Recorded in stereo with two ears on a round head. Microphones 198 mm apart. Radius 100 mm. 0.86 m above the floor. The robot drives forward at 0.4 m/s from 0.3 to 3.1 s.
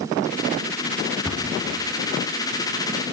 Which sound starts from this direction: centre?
A cupboard door, at 1.2 s.